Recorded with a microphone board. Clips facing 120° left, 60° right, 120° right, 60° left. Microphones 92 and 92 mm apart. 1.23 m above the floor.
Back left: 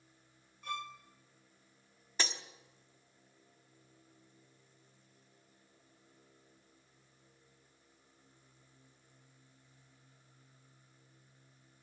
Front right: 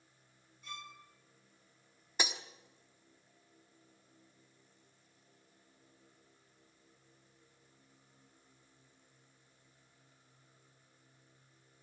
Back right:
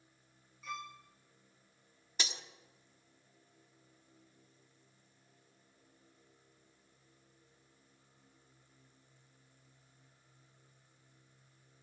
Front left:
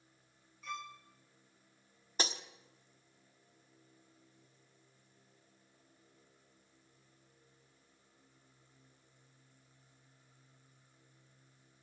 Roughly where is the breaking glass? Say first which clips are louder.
Front right 1 dB, front left 5 dB; ahead.